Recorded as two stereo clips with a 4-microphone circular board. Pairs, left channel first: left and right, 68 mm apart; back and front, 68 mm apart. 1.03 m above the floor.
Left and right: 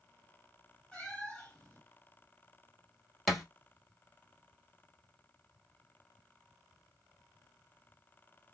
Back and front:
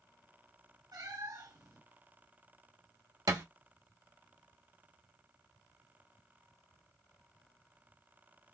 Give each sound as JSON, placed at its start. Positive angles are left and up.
{"t": 0.9, "sound": "a cat meowing", "azimuth_deg": 15, "distance_m": 2.0}
{"t": 3.3, "sound": "a thud", "azimuth_deg": 0, "distance_m": 1.5}